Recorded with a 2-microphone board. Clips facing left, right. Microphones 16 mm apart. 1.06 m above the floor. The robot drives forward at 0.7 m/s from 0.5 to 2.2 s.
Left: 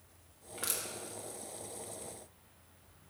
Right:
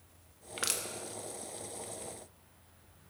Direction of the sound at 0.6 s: 40° right (ahead or behind).